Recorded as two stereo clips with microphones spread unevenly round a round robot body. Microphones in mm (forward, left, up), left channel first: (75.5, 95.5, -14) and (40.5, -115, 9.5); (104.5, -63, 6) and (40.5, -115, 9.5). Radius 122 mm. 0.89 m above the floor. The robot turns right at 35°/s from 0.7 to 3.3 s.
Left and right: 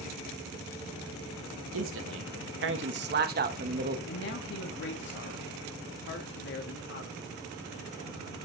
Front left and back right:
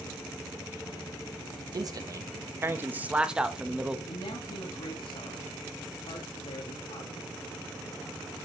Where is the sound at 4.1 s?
60° left, 1.7 m.